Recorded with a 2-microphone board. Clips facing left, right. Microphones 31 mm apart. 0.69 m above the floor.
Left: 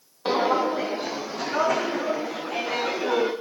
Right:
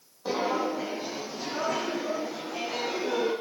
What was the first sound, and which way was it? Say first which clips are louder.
Footsteps: left 6 dB; 55° left (ahead or behind).